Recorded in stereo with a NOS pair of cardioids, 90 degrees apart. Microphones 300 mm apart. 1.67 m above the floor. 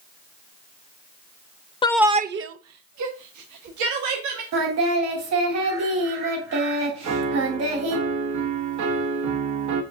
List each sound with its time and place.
1.8 s a shout: 20° left, 0.5 m; by 4.4 s 80° right, 2.5 m
4.5 s singing: 65° right, 3.5 m
7.0 s a piano: 70° right, 1.5 m